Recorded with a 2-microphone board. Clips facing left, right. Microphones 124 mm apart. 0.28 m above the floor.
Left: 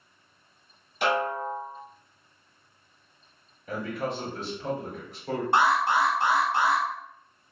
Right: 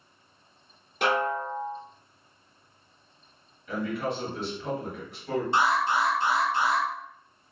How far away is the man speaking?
About 1.3 m.